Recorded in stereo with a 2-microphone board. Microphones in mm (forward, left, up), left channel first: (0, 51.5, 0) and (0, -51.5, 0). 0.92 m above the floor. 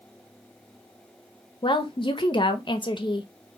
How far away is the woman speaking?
About 0.8 m.